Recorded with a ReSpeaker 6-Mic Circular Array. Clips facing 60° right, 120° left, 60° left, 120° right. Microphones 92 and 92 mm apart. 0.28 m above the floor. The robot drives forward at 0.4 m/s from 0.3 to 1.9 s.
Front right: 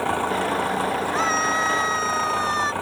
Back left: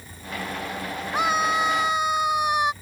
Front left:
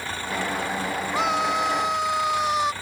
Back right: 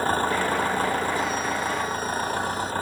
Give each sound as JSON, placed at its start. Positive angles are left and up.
{"t": 0.0, "sound": "an engine running", "azimuth_deg": -70}
{"t": 1.1, "sound": "a scream", "azimuth_deg": 45}